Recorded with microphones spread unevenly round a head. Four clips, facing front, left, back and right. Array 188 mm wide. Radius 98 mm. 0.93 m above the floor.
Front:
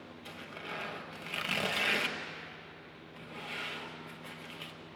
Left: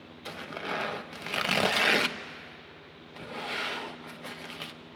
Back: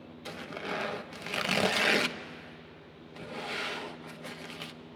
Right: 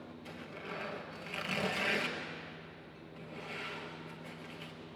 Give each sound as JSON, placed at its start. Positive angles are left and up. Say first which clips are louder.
{"t": 0.2, "sound": "tearing paper", "louder": "left 10 dB, back 8 dB", "azimuth_deg": 145, "distance_m": 0.9}